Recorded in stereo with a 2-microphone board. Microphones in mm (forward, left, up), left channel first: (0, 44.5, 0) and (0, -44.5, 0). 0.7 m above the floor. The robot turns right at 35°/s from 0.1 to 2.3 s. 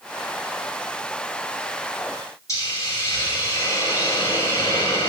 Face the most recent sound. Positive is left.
turn(degrees=35)  # may be behind; listen again after turning